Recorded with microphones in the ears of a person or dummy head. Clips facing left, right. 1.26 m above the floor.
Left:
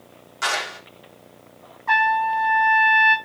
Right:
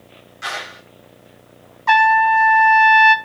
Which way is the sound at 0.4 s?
85° left.